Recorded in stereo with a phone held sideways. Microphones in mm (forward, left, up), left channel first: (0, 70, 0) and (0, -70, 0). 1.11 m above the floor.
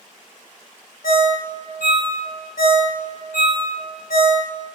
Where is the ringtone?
85° left, 0.5 m.